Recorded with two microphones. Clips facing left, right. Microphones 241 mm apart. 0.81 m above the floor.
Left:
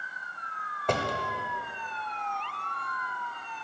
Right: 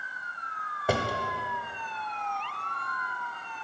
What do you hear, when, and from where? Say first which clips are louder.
0.9 s a drawer: right 1 dB; 10° right (ahead or behind), 0.5 m